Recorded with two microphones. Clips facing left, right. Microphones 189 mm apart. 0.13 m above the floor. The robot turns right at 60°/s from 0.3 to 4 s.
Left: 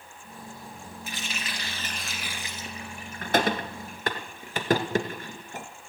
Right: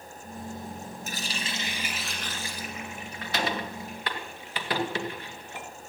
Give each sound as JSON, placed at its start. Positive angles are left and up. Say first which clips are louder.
{"t": 1.1, "sound": "a running tap", "louder": "even", "side_deg": -45, "distance_m": 1.5}